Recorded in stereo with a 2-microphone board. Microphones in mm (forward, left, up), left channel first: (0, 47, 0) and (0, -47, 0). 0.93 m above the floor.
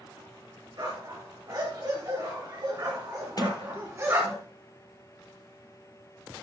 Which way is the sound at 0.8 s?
50° right (ahead or behind).